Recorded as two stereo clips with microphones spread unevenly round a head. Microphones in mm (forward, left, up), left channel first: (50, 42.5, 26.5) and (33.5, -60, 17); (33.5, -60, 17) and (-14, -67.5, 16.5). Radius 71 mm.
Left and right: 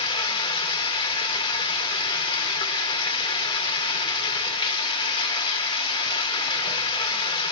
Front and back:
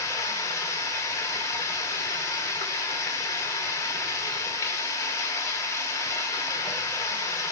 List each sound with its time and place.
0.0 s running water: 45° left, 2 m